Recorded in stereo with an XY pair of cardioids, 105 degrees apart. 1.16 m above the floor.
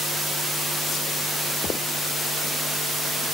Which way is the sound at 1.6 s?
50° left.